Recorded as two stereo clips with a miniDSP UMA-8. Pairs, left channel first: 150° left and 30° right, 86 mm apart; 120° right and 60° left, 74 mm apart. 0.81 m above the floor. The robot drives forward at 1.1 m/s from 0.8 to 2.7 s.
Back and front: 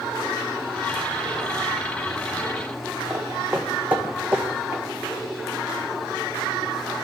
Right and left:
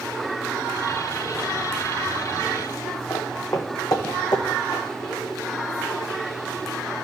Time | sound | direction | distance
3.1 | footsteps | 110° right | 1.3 m